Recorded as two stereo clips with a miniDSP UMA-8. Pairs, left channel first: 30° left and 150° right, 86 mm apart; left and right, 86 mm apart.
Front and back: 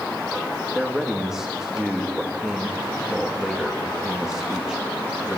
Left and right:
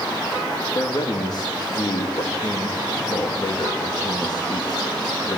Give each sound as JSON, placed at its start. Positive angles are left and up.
{"t": 0.8, "sound": "a man speaking", "azimuth_deg": 125, "distance_m": 3.0}